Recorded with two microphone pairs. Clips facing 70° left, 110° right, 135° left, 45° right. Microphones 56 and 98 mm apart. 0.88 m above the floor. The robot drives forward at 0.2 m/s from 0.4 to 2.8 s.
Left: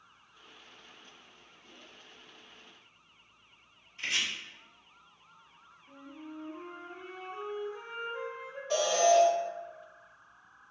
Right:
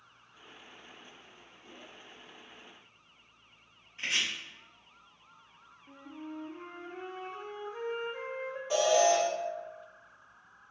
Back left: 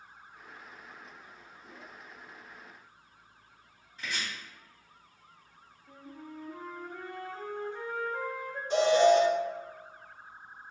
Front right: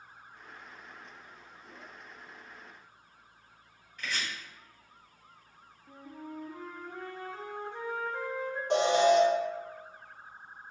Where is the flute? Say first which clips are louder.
Right 2 dB, front right 2 dB; 115° right, 0.6 m.